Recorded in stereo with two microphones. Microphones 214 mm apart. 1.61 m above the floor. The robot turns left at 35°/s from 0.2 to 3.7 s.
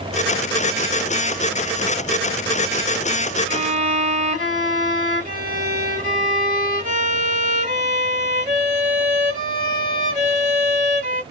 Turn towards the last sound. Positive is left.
turn(degrees=-35)  # may be behind; listen again after turning